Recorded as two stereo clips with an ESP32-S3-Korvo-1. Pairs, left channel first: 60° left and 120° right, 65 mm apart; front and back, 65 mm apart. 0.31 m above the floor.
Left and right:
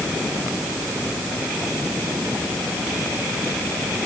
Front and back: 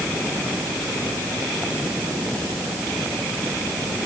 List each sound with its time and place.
Only background noise.